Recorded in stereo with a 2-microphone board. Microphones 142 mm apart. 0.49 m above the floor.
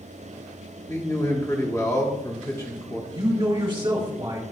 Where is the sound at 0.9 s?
20° left (ahead or behind), 1.3 m.